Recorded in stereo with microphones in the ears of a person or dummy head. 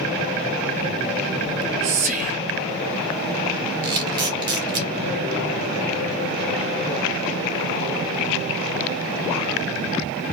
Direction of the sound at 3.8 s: 25° right (ahead or behind).